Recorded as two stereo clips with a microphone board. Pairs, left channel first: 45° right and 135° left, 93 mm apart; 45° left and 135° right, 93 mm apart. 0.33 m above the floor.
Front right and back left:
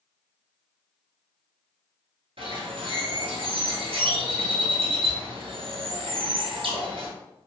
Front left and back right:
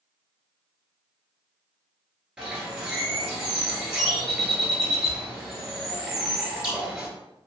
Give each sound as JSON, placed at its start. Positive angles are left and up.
{"t": 2.4, "sound": "a bird", "azimuth_deg": 145, "distance_m": 1.0}